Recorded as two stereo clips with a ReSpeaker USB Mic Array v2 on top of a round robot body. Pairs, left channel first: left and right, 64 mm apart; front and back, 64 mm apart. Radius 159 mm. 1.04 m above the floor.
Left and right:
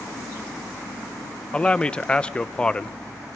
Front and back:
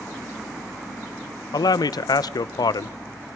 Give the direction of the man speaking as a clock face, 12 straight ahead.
11 o'clock.